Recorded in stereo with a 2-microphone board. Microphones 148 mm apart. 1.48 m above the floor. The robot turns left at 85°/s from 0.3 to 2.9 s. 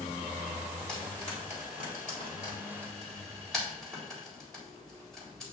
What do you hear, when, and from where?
0.9 s frying: 5° left (ahead or behind), 3.5 m